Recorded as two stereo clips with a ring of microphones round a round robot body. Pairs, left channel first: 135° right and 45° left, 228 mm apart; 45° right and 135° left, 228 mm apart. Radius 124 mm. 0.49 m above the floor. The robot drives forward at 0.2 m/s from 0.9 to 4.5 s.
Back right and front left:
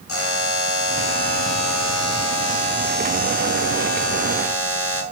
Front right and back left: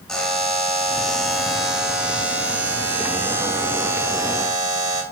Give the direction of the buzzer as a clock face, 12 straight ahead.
4 o'clock.